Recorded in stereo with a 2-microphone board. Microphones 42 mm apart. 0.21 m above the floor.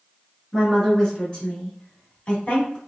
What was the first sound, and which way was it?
A woman speaking, 10° left (ahead or behind).